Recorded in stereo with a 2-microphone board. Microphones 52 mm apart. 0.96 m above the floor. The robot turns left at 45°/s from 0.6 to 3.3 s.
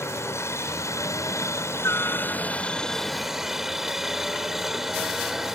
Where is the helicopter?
115° left; by 5.5 s 5° right.